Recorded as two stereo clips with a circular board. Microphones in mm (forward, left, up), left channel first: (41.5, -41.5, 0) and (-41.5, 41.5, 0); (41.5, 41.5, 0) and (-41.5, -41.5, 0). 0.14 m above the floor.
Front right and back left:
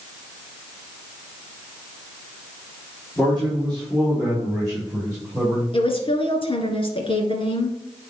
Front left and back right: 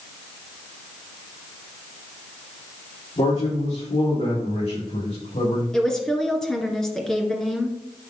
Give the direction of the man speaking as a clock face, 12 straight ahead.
11 o'clock.